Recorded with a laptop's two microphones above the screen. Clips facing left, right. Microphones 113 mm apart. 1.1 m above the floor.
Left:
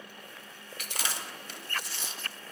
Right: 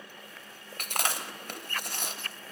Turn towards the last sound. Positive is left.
turn(degrees=-55)  # may be behind; listen again after turning